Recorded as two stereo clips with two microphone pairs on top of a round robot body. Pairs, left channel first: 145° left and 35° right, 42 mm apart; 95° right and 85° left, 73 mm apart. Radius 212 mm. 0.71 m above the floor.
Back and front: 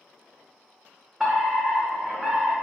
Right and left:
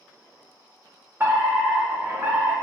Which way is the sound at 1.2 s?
45° left.